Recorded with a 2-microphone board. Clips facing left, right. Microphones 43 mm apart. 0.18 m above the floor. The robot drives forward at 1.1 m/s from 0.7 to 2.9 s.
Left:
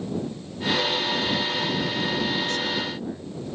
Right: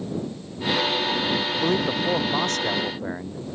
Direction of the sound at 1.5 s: 60° right (ahead or behind).